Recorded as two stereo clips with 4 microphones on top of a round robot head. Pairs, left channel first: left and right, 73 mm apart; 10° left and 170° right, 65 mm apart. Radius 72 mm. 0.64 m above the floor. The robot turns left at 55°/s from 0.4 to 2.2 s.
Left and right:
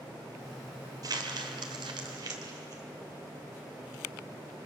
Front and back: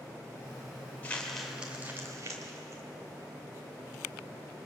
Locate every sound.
1.0 s crumpling: 60° right, 2.5 m; by 2.8 s 125° right, 2.5 m